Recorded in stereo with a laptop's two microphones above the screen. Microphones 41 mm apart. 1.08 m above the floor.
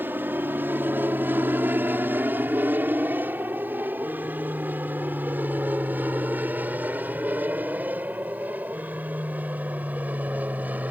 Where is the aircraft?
55° right (ahead or behind); by 10.9 s 40° right (ahead or behind).